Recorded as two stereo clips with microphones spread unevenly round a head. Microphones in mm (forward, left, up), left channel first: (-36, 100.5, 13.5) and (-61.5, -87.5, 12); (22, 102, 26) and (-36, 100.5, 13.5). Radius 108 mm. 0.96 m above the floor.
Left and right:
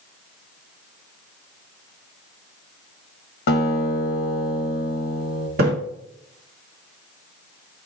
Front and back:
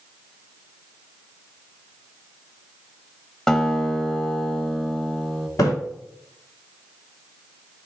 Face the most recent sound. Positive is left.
turn(degrees=-50)